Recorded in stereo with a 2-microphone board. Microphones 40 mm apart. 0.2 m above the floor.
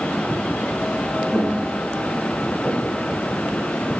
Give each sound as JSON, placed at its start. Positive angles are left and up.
{"t": 1.3, "sound": "footsteps", "side_deg": 15, "distance_m": 3.0}